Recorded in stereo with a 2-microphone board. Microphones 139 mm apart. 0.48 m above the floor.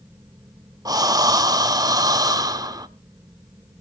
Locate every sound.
0.8 s breathing: 25° right (ahead or behind), 0.9 m